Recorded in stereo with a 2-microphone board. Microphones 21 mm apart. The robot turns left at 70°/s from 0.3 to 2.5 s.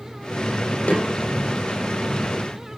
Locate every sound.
0.9 s a snare drum: 60° left (ahead or behind), 6 m; by 1.1 s 75° left (ahead or behind), 6 m